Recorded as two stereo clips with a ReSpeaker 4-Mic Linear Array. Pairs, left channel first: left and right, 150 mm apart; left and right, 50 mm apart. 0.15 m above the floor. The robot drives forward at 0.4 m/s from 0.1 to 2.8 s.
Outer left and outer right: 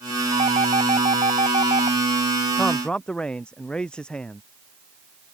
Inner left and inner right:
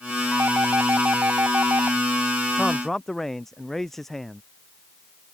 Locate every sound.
0.3 s a doorbell: 50° right (ahead or behind)
2.6 s a man speaking: 5° left (ahead or behind)